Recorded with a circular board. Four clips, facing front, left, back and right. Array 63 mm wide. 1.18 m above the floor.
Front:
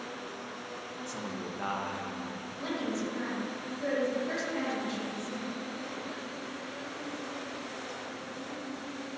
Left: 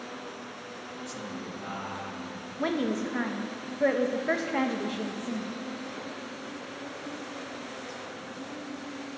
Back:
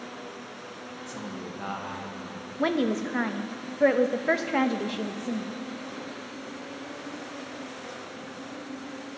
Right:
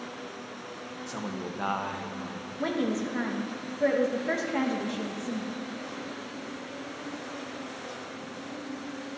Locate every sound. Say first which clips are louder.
1.1 s a man speaking: right 5 dB, back 1 dB; 80° right, 1.3 m
2.6 s a woman speaking: even, back 9 dB; 165° left, 0.9 m